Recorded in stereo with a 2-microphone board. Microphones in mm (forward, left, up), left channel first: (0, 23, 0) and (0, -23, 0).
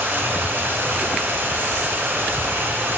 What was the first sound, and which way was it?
Running water, 55° right (ahead or behind).